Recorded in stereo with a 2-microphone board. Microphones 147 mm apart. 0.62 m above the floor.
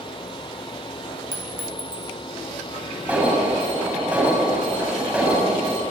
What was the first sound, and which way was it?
A clink, 70° right (ahead or behind).